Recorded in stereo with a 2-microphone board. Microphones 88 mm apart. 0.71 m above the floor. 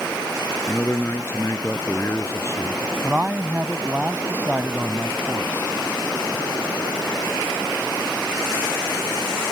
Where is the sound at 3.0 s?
20° right (ahead or behind).